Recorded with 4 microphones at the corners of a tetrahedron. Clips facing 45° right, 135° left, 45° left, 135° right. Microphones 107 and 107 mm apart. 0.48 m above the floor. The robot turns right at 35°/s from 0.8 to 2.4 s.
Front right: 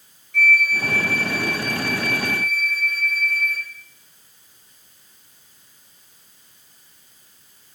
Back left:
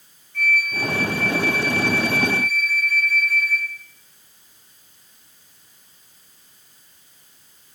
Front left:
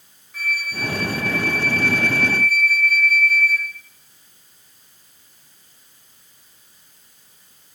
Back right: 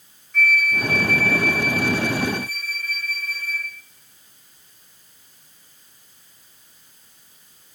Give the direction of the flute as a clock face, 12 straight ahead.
1 o'clock.